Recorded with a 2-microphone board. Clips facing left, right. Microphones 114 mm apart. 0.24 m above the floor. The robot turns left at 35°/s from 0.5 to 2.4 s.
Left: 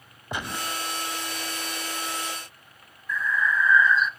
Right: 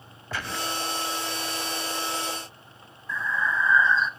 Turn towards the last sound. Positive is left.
turn(degrees=-30)  # may be behind; listen again after turning